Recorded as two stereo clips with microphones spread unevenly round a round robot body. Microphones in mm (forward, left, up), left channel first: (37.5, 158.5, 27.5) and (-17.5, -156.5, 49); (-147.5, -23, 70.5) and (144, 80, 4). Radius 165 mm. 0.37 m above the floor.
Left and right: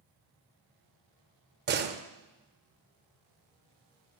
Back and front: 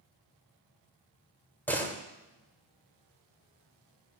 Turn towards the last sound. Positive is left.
turn(degrees=-60)